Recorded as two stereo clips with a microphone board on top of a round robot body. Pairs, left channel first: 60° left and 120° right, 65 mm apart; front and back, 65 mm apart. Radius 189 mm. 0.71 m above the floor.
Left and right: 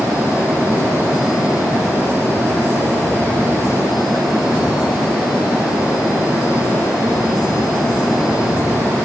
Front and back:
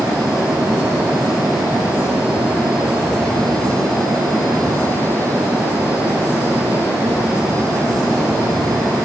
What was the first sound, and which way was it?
Only background noise.